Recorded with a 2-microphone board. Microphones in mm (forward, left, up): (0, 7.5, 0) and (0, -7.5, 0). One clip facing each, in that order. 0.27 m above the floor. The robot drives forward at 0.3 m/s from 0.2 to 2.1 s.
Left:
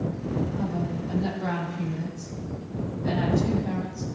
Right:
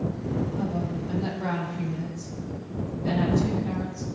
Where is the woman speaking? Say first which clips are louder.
Even; 15° right (ahead or behind), 6.5 m.